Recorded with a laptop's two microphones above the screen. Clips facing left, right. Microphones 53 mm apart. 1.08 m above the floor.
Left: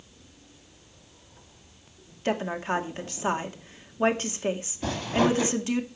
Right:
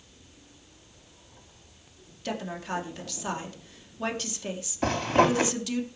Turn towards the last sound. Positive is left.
turn(degrees=-50)  # may be behind; listen again after turning